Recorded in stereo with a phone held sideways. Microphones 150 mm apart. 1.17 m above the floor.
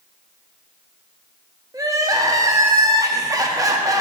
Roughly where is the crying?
Right.